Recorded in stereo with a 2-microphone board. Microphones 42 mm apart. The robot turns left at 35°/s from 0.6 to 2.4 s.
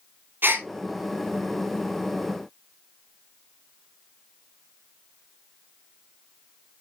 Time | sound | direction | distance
0.4 | a gasp | 50° right (ahead or behind) | 2 m